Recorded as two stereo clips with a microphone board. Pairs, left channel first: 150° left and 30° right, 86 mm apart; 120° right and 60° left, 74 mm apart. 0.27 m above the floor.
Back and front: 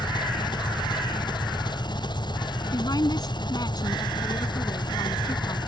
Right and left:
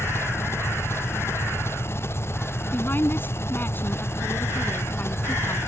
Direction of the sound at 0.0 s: 175° right.